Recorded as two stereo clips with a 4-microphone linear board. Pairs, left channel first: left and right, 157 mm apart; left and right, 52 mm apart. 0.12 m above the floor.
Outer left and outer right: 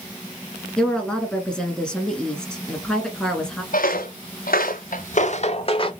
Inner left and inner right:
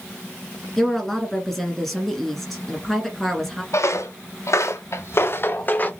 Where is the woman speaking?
5° left (ahead or behind), 1.3 m.